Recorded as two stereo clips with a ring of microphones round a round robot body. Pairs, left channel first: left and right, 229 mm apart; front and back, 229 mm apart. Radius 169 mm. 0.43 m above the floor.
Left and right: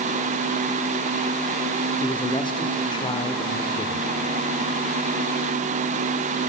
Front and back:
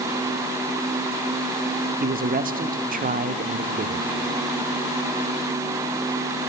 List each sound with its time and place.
2.0 s a man speaking: 150° left, 1.1 m